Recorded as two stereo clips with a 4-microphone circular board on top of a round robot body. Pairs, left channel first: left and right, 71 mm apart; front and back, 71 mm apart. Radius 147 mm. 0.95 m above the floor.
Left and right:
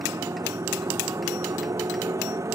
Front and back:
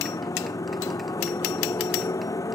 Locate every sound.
0.0 s a motorcycle: 45° right